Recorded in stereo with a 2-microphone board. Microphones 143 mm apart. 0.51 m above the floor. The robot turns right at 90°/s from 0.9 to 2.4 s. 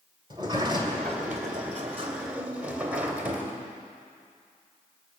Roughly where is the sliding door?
Behind right.